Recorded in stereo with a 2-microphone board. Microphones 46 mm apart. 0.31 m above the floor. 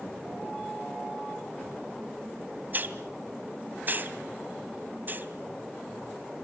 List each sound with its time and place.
2.7 s a hiss: 40° right (ahead or behind), 2.0 m